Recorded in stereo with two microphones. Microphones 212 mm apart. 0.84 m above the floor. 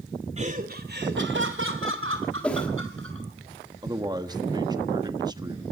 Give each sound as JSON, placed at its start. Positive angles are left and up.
{"t": 0.4, "sound": "laughter", "side_deg": -30, "distance_m": 2.5}
{"t": 2.4, "sound": "a whoosh", "side_deg": 5, "distance_m": 2.5}
{"t": 3.8, "sound": "a man speaking", "side_deg": -20, "distance_m": 1.1}